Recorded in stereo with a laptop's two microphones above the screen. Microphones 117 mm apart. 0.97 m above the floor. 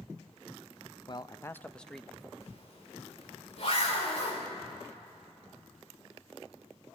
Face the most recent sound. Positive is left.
turn(degrees=65)  # may be behind; listen again after turning